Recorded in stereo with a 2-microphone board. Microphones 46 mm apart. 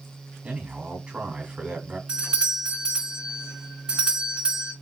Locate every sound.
0.4 s a man speaking: 25° right (ahead or behind), 1.6 m
2.1 s a doorbell: 20° right (ahead or behind), 1.5 m